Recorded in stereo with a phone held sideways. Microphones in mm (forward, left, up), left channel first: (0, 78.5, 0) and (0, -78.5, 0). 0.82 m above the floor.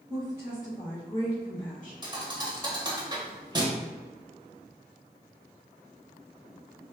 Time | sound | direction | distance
0.1 | a woman speaking | 25° right (ahead or behind) | 0.9 m
2.0 | a thud | 25° right (ahead or behind) | 0.7 m